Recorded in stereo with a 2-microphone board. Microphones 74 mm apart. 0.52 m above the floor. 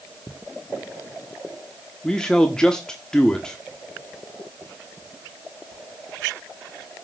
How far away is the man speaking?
About 1.2 m.